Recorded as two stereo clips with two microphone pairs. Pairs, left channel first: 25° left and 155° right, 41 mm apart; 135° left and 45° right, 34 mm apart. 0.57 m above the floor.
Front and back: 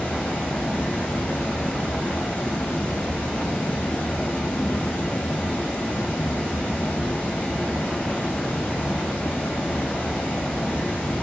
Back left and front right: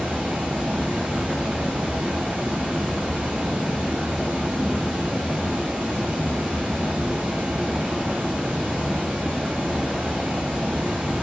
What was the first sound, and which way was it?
Running water, 35° right.